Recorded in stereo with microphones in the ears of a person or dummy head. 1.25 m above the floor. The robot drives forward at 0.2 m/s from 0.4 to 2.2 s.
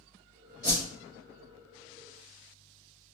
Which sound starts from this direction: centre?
A whoosh, at 0.6 s.